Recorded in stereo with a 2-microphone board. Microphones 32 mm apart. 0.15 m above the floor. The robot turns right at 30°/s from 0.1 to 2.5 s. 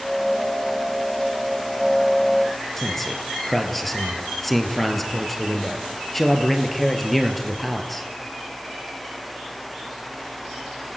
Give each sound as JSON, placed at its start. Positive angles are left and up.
{"t": 2.8, "sound": "a man speaking", "side_deg": 10, "distance_m": 3.0}